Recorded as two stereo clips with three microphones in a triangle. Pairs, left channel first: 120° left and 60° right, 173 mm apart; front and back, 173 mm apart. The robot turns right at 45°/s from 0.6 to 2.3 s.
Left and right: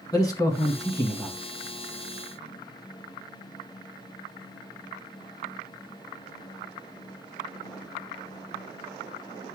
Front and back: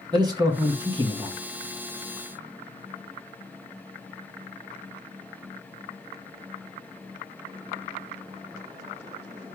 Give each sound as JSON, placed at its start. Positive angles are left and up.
{"t": 0.1, "sound": "a man speaking", "azimuth_deg": 155, "distance_m": 1.1}